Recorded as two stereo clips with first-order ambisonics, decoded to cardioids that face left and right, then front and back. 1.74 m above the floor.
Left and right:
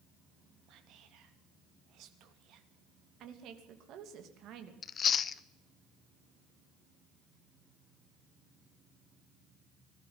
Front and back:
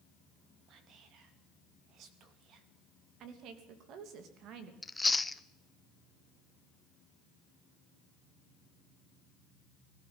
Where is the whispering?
130° right, 2.5 m.